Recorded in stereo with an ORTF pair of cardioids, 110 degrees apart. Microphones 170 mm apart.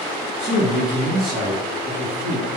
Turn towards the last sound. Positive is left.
turn(degrees=-65)